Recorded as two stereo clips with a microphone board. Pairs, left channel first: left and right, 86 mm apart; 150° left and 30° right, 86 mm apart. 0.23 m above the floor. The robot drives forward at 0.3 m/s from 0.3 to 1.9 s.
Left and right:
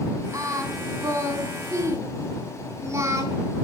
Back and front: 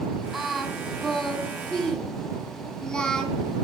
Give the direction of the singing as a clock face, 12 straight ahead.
4 o'clock.